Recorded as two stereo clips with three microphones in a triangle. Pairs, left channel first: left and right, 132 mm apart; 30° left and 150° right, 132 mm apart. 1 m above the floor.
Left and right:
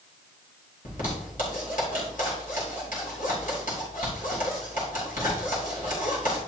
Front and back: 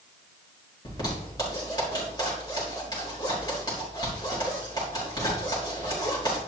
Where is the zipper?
90° left, 4.5 m.